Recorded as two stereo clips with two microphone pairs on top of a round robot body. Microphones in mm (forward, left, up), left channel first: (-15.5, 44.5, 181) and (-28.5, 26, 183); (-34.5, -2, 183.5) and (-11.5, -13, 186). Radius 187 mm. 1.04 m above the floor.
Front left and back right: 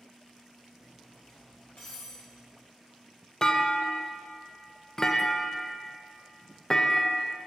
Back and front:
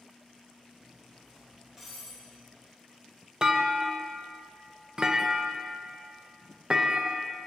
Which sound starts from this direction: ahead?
A clunk, at 3.4 s.